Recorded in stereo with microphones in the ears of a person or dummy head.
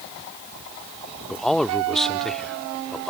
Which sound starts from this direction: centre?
A man speaking, at 1.3 s.